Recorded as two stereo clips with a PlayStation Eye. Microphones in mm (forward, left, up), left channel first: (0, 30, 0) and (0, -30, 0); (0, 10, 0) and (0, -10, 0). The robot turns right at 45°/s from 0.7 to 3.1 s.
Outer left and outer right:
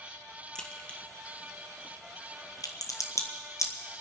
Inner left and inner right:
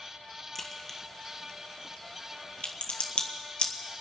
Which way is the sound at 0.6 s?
15° left (ahead or behind).